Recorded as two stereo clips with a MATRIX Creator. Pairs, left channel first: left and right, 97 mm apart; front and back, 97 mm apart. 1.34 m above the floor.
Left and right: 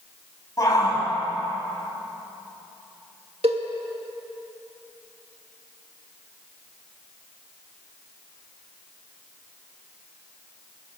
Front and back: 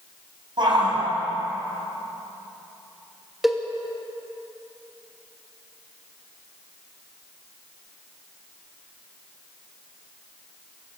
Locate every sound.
0.6 s a shout: 140° left, 7.5 m
3.4 s a cowbell: 95° right, 2.0 m